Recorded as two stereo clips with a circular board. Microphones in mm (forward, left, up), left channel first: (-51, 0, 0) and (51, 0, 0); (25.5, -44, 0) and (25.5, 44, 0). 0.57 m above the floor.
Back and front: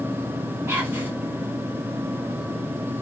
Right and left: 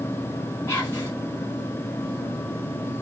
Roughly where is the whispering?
Ahead right.